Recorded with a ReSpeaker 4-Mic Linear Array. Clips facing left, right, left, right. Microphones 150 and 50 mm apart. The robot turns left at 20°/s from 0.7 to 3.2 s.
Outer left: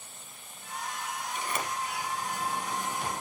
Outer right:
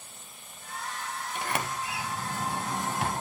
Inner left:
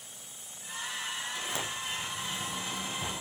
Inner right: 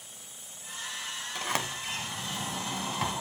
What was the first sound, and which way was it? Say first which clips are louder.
A sliding door: outer right 2 dB, inner right 3 dB; 65° right.